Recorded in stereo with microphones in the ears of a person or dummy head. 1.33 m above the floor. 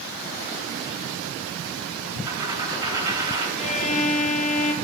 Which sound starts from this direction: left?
A violin, at 3.6 s.